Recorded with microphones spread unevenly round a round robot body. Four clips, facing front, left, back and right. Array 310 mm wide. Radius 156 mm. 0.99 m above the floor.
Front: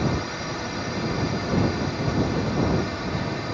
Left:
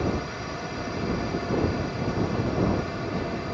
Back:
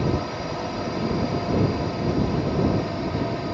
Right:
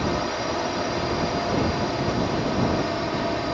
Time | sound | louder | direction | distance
0.0 | a drone | right 4 dB, back 1 dB | 105° right | ?